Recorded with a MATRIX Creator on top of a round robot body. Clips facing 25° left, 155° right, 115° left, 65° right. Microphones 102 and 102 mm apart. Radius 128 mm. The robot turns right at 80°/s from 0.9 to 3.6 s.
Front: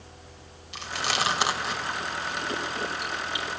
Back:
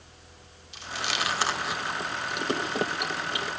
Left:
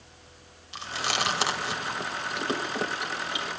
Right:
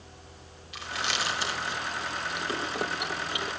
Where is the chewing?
50° left, 3 m; by 3.5 s 100° right, 3 m.